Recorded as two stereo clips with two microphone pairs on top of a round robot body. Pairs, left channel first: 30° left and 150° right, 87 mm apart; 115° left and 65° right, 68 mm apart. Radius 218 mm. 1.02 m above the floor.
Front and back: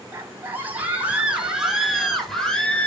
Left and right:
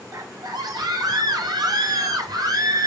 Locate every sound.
0.1 s a scream: 90° right, 4.5 m; by 2.9 s 50° right, 4 m